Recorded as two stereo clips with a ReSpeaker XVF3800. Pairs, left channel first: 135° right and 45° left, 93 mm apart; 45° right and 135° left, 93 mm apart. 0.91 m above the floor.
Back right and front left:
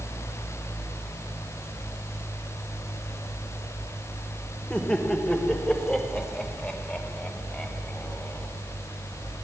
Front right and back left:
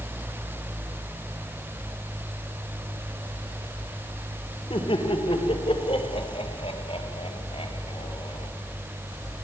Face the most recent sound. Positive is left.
turn(degrees=-60)